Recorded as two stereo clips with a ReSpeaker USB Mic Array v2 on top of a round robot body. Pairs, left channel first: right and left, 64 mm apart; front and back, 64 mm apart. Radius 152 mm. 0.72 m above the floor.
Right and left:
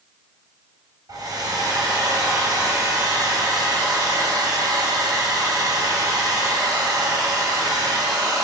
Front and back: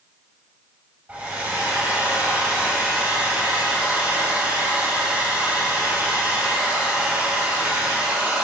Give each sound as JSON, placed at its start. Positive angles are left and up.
{"t": 1.1, "sound": "a hair dryer", "azimuth_deg": 115, "distance_m": 2.5}